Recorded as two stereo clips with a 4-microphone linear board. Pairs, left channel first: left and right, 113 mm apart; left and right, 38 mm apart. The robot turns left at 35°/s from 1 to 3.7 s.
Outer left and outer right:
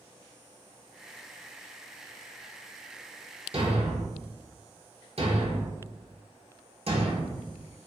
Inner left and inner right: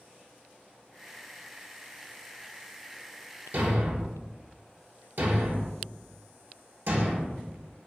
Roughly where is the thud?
Right.